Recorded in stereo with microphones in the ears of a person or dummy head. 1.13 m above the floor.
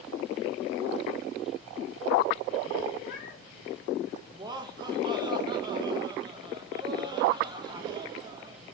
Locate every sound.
3.0 s a cat meowing: 55° left (ahead or behind), 2 m
4.3 s laughter: 25° right (ahead or behind), 1.5 m